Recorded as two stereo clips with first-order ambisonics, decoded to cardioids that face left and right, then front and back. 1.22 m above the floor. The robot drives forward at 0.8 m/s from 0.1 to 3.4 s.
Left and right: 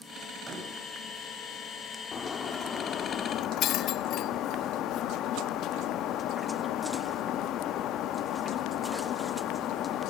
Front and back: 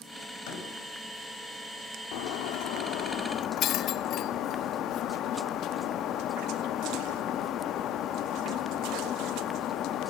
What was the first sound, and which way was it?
A door slam, 15° right.